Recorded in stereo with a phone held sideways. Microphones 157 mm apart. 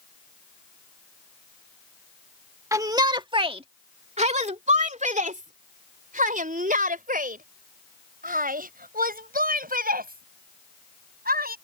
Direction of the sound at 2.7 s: 20° right (ahead or behind).